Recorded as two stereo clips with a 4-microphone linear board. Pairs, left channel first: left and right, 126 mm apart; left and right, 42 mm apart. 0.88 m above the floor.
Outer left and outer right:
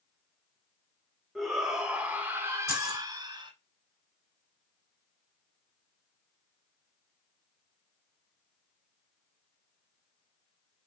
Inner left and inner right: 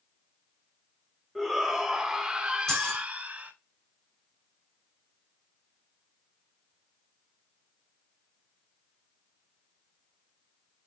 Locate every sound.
1.4 s a shout: centre (ahead or behind), 2 m; by 3.5 s 35° right (ahead or behind), 1.9 m
2.7 s keys jangling: 20° left (ahead or behind), 4 m